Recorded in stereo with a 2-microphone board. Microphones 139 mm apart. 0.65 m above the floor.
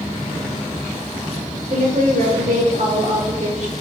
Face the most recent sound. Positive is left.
turn(degrees=-55)  # may be behind; listen again after turning